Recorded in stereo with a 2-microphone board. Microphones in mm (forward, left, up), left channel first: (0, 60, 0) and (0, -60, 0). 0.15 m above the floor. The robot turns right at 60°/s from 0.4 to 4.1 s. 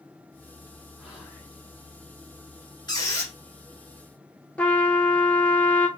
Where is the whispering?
10° right, 1.8 m; by 1.5 s 25° left, 1.8 m.